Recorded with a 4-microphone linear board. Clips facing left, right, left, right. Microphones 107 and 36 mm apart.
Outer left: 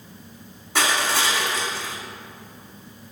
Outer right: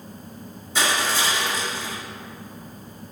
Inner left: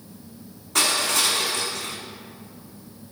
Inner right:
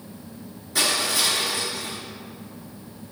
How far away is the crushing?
About 2.0 m.